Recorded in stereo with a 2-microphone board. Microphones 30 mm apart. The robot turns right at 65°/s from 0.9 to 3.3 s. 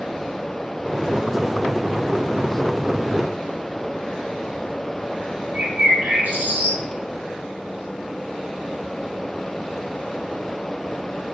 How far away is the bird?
About 3 m.